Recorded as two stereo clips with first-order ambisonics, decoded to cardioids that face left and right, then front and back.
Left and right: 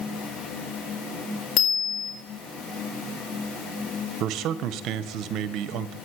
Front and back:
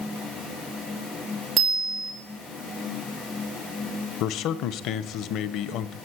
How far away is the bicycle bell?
About 3.5 m.